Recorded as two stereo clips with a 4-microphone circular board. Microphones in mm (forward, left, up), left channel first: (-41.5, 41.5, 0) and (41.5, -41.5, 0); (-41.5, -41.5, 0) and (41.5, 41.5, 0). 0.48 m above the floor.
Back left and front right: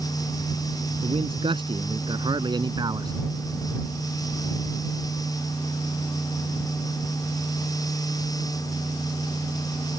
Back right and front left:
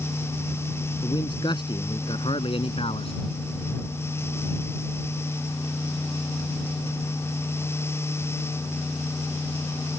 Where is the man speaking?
85° right; by 3.1 s 100° right.